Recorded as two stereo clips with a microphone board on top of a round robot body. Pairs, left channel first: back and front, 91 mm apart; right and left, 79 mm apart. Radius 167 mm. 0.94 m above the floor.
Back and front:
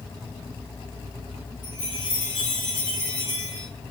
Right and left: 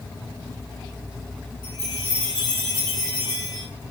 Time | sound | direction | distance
1.6 | a chime | 135° right | 2.0 m